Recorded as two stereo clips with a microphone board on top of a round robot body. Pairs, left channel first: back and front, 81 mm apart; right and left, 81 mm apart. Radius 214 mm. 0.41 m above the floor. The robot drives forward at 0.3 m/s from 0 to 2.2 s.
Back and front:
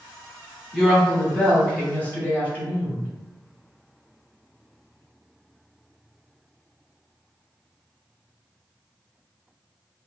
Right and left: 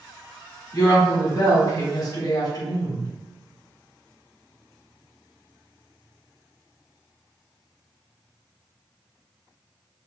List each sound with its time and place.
0.7 s a woman speaking: 95° right, 1.5 m; by 3.1 s 115° right, 1.6 m